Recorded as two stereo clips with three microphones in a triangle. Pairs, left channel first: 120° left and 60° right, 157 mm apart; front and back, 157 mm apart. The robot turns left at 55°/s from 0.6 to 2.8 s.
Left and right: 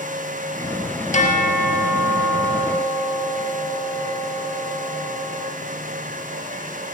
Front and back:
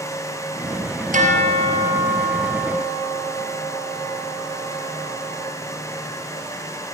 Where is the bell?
155° left, 2 m; by 5.5 s 60° left, 2 m.